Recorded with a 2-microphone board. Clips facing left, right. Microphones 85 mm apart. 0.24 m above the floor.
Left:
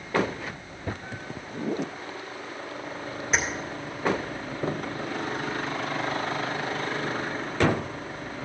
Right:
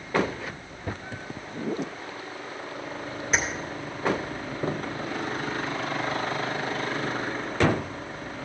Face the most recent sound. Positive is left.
turn(degrees=5)  # may be behind; listen again after turning